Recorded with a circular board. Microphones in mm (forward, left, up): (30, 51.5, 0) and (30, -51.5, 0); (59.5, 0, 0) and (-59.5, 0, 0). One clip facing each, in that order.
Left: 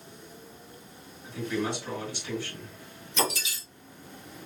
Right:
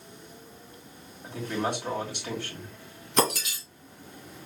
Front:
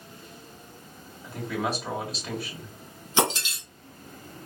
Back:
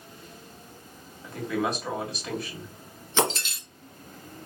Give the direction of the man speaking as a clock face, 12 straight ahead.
3 o'clock.